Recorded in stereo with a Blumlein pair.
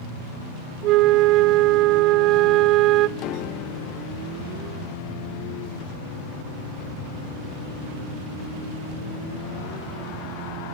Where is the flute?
40° right, 0.5 m.